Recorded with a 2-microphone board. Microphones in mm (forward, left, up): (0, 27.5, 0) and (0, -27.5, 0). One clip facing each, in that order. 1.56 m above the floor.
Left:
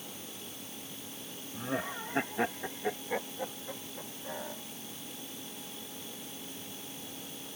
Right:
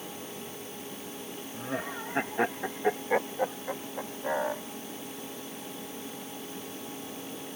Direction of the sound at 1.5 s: Centre (ahead or behind).